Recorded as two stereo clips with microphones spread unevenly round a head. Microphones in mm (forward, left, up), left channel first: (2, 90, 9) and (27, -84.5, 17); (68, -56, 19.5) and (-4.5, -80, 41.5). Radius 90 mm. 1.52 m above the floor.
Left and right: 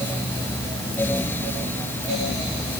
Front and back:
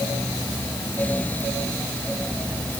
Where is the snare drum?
No snare drum in this recording.